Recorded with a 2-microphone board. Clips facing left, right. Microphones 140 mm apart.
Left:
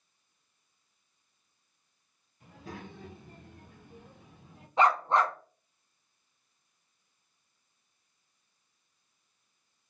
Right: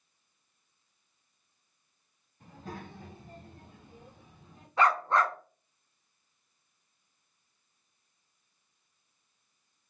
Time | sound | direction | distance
2.4 | a child speaking | 45° right (ahead or behind) | 1.4 m
4.8 | a dog barking | 25° left (ahead or behind) | 0.5 m